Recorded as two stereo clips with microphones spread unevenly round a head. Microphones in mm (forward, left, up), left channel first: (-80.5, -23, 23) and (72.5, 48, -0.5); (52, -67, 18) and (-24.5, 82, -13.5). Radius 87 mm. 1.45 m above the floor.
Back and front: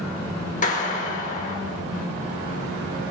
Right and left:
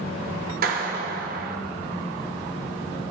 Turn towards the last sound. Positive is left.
turn(degrees=160)